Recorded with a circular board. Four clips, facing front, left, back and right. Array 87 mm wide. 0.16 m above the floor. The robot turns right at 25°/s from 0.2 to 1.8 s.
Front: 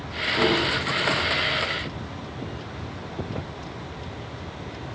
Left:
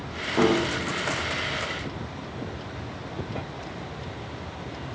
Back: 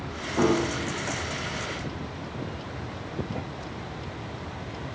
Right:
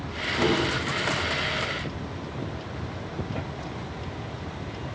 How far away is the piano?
About 6 m.